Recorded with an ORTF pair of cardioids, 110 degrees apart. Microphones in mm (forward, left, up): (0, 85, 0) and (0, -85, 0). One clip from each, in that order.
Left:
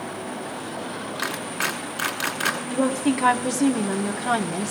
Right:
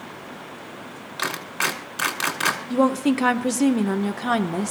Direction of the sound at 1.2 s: 15° right.